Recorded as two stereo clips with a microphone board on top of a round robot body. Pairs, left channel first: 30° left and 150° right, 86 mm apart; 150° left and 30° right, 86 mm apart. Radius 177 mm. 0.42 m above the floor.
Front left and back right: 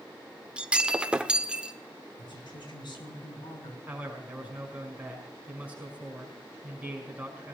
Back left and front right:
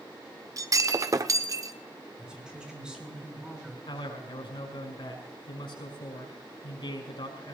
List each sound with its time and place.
0.6 s breaking glass: 75° right, 1.1 m
2.2 s a woman speaking: 50° left, 5.5 m
3.9 s a man speaking: 140° left, 5.5 m